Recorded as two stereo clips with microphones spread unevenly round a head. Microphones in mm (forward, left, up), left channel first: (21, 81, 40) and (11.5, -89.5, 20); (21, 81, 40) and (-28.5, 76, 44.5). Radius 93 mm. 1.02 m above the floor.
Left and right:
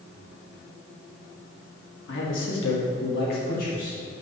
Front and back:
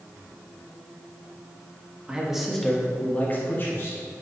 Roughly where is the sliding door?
I don't hear a sliding door.